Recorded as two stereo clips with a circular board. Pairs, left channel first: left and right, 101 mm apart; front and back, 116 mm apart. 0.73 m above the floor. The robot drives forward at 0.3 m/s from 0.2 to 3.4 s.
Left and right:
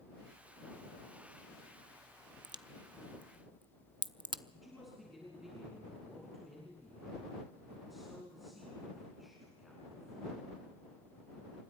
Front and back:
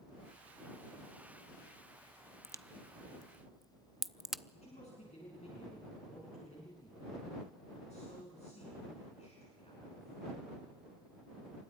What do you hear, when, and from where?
2.4 s a crack: 55° right, 0.5 m; by 4.4 s 95° right, 0.5 m
4.5 s a man speaking: straight ahead, 6.5 m